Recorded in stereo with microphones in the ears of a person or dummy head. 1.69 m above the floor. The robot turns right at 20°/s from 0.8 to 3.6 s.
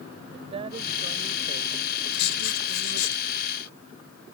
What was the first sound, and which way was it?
A woman speaking, 145° right.